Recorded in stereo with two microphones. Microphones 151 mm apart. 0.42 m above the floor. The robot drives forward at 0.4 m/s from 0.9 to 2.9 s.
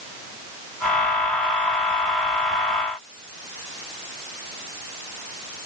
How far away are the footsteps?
I don't hear footsteps.